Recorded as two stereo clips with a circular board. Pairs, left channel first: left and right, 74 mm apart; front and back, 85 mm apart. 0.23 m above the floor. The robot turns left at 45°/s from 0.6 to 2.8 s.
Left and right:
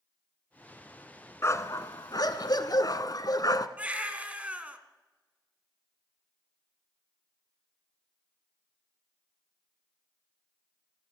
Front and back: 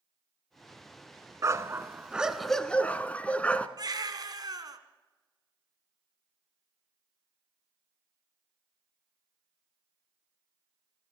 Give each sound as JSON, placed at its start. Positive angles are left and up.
{"t": 1.4, "sound": "a dog barking", "azimuth_deg": 135, "distance_m": 1.1}
{"t": 3.8, "sound": "a baby crying", "azimuth_deg": -155, "distance_m": 1.8}